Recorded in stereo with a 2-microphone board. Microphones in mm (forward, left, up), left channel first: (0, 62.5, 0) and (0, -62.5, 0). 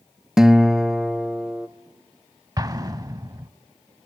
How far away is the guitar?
About 0.6 m.